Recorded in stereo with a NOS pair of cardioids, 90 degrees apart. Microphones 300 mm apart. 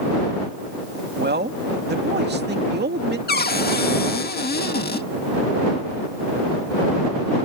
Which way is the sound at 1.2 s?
35° right.